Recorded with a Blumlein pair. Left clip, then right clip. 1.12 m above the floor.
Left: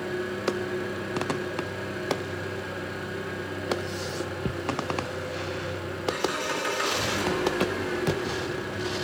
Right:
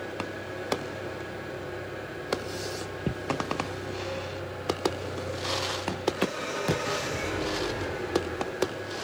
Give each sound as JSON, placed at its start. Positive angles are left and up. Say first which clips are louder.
{"t": 0.0, "sound": "an engine running", "louder": "left 6 dB", "azimuth_deg": 35, "distance_m": 7.5}